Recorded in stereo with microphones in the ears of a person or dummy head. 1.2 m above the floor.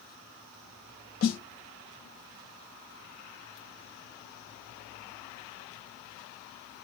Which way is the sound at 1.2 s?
45° left (ahead or behind).